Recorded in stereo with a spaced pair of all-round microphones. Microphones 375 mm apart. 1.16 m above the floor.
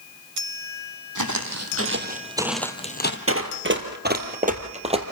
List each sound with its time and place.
1.1 s footsteps: 55° right (ahead or behind), 2 m; by 3.2 s 30° left (ahead or behind), 1.5 m
3.3 s running footsteps: 35° right (ahead or behind), 2.0 m; by 5.0 s 15° right (ahead or behind), 2 m